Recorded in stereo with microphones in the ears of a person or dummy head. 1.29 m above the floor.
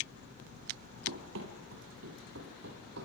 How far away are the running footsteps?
About 2.5 m.